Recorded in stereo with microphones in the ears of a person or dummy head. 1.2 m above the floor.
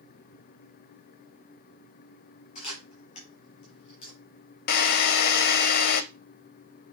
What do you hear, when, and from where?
2.5 s a camera shutter: 45° left (ahead or behind), 5 m
4.7 s a drill: 55° left (ahead or behind), 0.9 m